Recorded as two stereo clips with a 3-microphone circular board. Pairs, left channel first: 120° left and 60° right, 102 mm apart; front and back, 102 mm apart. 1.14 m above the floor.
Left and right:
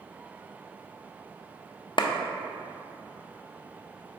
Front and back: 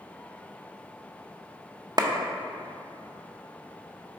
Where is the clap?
140° left, 0.5 m.